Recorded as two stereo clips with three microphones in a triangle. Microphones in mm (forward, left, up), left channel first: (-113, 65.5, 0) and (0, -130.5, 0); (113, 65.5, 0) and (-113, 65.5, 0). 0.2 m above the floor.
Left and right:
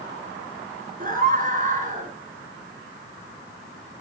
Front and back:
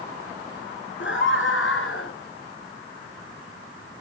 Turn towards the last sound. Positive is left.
turn(degrees=-10)